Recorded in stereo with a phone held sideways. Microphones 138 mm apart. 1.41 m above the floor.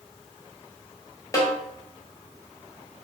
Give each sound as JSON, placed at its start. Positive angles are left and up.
{"t": 1.3, "sound": "a snare drum", "side_deg": 25, "distance_m": 0.8}